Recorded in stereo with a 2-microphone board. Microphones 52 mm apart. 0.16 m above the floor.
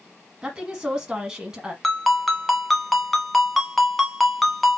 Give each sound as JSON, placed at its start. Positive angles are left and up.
{"t": 0.4, "sound": "a woman speaking", "side_deg": -15, "distance_m": 1.1}
{"t": 1.8, "sound": "a ringtone", "side_deg": 0, "distance_m": 1.0}